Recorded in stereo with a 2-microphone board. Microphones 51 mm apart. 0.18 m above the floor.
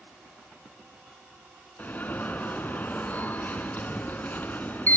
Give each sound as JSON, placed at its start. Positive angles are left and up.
{"t": 1.8, "sound": "an alarm", "side_deg": 35, "distance_m": 1.1}